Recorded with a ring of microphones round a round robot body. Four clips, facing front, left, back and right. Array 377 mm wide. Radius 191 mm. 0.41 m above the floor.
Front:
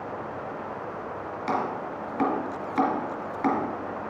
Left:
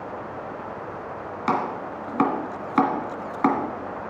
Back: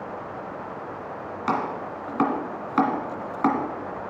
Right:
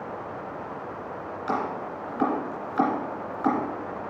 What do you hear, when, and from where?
1.5 s chopping: 105° left, 2 m